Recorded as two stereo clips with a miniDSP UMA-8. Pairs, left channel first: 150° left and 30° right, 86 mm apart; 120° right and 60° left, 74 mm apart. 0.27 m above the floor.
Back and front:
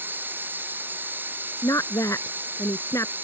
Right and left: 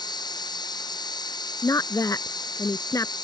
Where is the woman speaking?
160° right.